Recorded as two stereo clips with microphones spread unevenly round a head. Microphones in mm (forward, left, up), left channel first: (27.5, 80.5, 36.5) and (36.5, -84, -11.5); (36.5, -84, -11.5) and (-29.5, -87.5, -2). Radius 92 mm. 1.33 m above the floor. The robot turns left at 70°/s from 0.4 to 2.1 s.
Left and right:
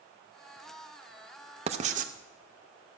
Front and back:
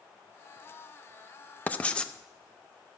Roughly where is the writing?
Ahead right.